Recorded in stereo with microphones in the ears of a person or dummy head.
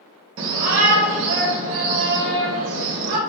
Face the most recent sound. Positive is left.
turn(degrees=-65)  # may be behind; listen again after turning